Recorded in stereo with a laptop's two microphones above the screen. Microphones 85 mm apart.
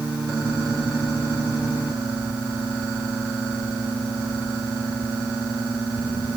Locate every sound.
Only background noise.